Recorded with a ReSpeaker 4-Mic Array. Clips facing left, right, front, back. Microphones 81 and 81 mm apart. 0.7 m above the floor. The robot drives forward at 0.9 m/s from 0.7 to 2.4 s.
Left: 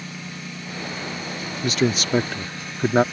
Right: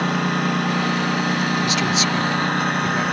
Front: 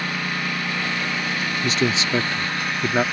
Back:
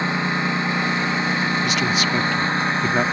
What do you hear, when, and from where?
0.0 s a lawn mower: 115° right
1.6 s a man speaking: 45° left; by 3.0 s 80° left